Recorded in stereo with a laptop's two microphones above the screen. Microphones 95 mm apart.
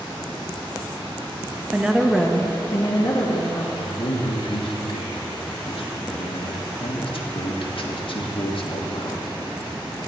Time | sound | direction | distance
1.7 | a woman speaking | 15° right (ahead or behind) | 1.2 m
3.8 | a man speaking | 65° left (ahead or behind) | 1.3 m